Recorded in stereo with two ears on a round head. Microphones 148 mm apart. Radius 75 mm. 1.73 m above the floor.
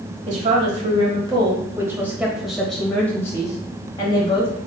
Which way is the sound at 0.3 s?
50° right (ahead or behind).